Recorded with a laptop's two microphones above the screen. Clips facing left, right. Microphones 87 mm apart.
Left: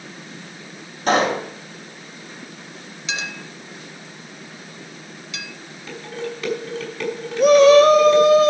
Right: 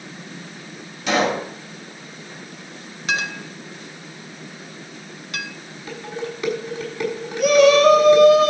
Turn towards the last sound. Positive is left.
turn(degrees=35)  # may be behind; listen again after turning